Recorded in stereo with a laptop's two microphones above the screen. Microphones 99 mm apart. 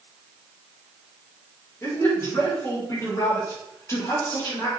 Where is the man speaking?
30° left (ahead or behind), 3 m.